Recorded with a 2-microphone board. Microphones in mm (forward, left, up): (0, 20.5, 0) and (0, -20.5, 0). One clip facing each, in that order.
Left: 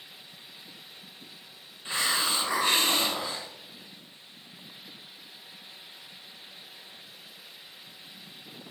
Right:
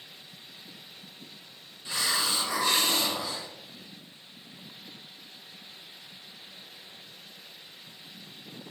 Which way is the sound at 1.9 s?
30° left (ahead or behind).